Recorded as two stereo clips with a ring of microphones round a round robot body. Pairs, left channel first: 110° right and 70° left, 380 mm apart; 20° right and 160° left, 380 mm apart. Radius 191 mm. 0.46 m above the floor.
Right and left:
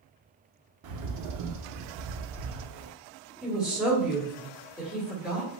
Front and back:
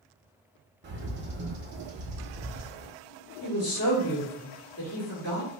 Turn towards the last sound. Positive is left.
turn(degrees=-15)